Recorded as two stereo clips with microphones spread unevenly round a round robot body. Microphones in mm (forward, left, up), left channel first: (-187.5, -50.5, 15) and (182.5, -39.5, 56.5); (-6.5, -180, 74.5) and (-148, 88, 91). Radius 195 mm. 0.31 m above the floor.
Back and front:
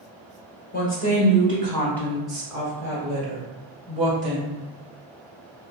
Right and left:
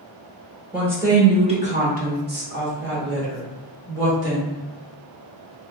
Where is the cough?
No cough in this recording.